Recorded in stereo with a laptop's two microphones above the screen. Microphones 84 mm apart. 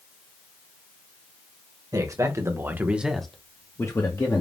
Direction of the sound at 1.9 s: 45° right (ahead or behind).